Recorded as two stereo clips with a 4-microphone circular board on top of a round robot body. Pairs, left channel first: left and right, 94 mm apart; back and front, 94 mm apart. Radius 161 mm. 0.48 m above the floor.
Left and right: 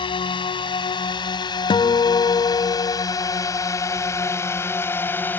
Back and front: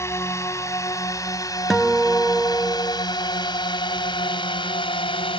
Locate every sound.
0.0 s a drone: 120° left; by 5.4 s 160° left
1.7 s a guitar: 90° left